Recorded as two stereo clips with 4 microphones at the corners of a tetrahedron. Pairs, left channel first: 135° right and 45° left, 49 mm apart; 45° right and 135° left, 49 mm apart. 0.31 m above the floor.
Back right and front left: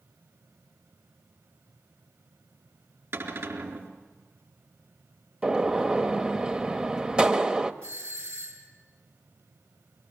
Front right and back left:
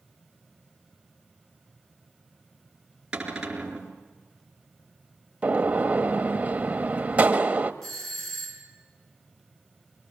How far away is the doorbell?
About 5 m.